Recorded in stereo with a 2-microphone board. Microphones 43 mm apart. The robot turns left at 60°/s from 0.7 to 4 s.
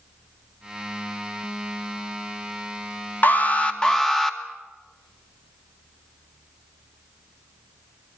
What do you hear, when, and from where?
3.2 s an alarm: 60° left, 2 m; by 4.4 s 10° left, 2 m